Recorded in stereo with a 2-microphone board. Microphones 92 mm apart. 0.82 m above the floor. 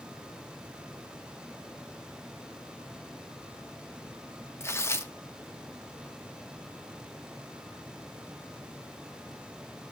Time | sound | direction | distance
4.6 | tearing paper | 25° left (ahead or behind) | 0.7 m